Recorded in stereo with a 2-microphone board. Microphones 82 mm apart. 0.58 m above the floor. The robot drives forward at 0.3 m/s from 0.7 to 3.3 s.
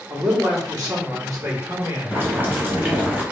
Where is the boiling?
30° right (ahead or behind), 1.1 m; by 3.2 s 20° right (ahead or behind), 1.4 m.